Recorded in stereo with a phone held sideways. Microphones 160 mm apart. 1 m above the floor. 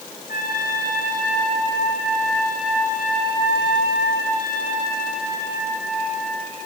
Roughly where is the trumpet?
Left.